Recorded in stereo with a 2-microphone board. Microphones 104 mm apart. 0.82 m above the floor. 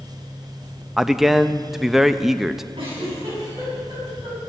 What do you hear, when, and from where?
1.0 s a man speaking: 5° right (ahead or behind), 0.5 m
2.8 s a giggle: 60° right (ahead or behind), 7.5 m